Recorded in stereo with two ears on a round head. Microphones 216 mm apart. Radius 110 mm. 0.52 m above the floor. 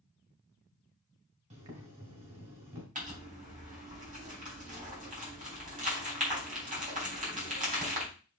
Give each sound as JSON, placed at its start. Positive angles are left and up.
{"t": 1.5, "sound": "boiling", "side_deg": -30, "distance_m": 1.9}
{"t": 3.0, "sound": "crumpling", "side_deg": -35, "distance_m": 3.5}